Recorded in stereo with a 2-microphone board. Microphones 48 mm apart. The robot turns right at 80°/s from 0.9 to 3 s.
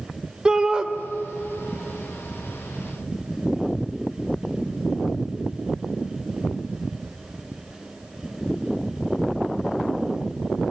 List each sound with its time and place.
0.5 s a shout: 20° right (ahead or behind), 1.7 m